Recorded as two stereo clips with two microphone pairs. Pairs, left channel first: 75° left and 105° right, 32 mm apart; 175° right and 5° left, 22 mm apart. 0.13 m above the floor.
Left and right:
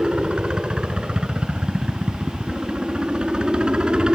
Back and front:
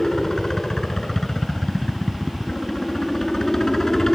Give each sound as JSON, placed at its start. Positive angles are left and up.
{"t": 0.0, "sound": "a helicopter", "azimuth_deg": -125}